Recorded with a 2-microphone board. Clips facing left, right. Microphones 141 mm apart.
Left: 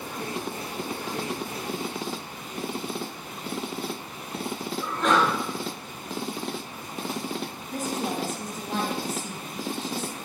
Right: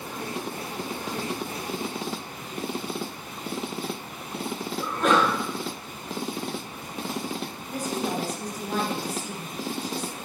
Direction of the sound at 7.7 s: 25° left (ahead or behind).